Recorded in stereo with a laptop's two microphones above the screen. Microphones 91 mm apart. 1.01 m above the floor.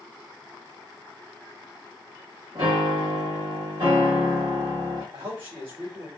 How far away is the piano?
About 1.4 m.